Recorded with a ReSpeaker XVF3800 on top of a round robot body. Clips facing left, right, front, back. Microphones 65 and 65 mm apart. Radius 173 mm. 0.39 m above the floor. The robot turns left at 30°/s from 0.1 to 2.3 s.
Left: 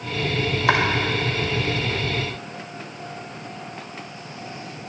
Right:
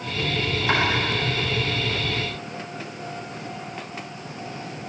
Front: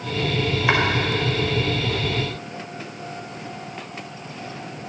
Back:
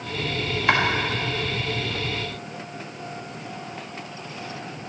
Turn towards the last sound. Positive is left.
turn(degrees=35)